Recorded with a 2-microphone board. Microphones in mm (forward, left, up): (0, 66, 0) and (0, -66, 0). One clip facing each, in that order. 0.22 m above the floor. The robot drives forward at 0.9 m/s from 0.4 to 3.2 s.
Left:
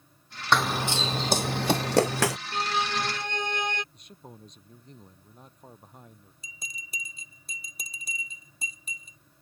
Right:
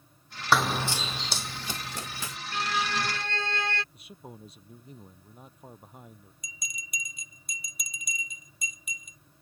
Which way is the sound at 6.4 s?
30° left (ahead or behind).